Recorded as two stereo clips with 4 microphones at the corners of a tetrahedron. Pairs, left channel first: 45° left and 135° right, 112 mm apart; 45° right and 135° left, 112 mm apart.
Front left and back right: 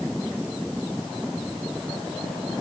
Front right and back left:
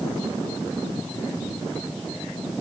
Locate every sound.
Only background noise.